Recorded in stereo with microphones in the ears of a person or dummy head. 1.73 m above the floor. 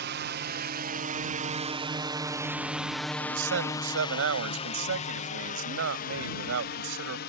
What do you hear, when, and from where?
0.0 s a drone: 50° right (ahead or behind); by 7.3 s 55° left (ahead or behind)
3.2 s a man speaking: 70° right (ahead or behind)